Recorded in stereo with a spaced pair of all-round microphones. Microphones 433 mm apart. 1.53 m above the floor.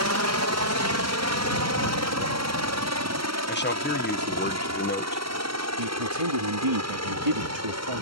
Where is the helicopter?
35° right (ahead or behind).